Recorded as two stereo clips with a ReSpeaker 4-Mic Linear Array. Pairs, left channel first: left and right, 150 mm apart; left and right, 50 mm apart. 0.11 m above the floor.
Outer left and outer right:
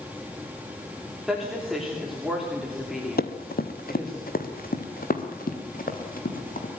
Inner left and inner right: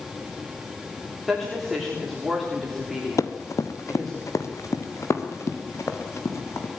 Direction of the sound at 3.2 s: 90° left.